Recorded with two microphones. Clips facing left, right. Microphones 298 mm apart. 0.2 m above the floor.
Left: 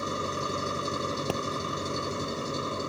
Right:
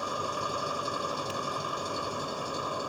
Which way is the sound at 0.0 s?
25° left (ahead or behind).